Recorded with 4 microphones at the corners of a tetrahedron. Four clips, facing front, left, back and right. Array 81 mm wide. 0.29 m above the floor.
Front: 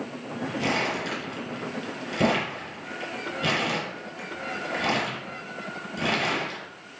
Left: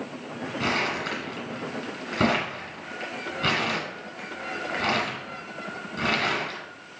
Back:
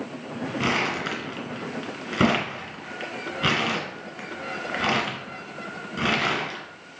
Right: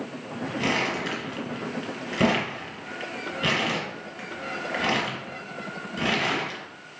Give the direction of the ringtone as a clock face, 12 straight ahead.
I don't hear a ringtone.